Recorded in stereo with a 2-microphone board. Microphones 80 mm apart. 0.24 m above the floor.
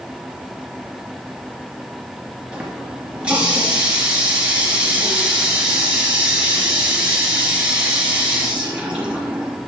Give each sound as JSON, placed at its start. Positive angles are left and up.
{"t": 2.5, "sound": "a running tap", "side_deg": -15, "distance_m": 2.5}